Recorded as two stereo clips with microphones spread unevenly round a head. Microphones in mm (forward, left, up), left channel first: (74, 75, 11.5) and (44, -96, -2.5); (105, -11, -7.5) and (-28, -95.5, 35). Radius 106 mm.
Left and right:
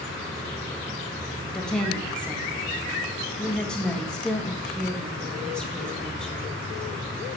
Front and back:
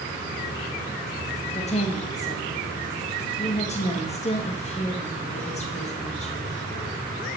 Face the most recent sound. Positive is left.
turn(degrees=-5)